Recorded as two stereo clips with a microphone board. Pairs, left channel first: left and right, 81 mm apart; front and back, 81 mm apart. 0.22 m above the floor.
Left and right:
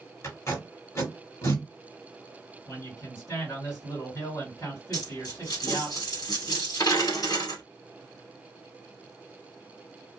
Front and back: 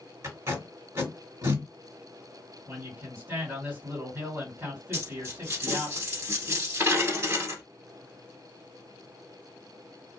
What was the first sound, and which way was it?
Tape being pulled, 135° left.